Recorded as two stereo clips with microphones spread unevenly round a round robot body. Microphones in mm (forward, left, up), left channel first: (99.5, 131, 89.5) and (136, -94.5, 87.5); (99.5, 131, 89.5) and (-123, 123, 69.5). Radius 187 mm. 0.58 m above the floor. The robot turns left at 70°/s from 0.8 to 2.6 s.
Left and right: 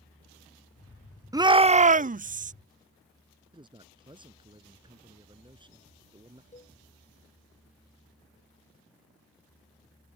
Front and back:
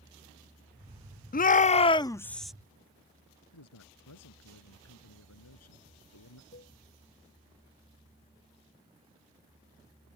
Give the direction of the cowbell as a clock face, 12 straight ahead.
11 o'clock.